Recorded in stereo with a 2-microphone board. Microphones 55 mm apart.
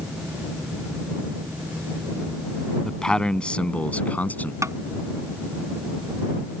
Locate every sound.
2.9 s a man speaking: 10° left (ahead or behind); by 4.5 s 30° left (ahead or behind)
4.6 s tapping: 70° right (ahead or behind)